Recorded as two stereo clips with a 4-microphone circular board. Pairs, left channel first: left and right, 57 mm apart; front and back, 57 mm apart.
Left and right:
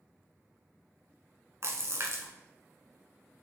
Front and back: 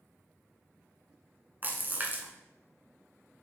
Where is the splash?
125° right, 1.0 m.